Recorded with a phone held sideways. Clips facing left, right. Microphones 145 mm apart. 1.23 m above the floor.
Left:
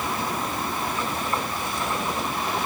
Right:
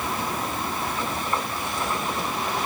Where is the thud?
No thud in this recording.